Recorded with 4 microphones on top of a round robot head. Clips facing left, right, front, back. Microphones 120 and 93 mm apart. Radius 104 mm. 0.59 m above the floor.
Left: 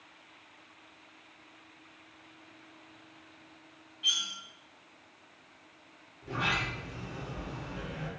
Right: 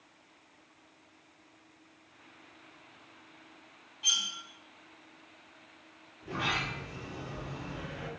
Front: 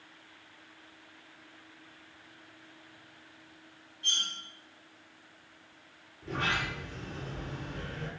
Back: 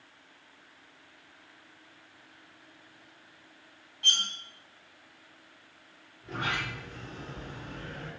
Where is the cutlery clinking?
145° right, 0.7 m.